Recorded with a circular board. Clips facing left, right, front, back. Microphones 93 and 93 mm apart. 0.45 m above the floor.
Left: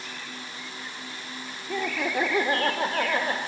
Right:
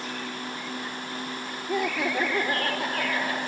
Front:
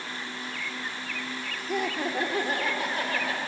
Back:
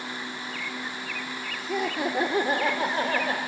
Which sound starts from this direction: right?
Laughter, at 1.7 s.